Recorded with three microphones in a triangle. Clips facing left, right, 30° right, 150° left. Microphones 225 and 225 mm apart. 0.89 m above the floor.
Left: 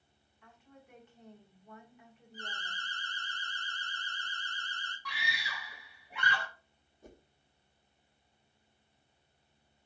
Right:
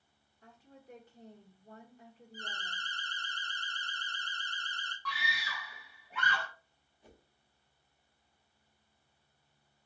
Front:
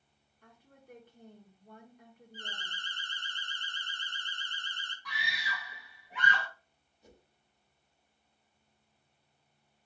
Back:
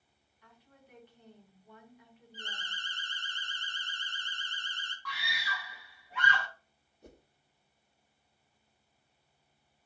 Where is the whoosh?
125° left, 0.6 m.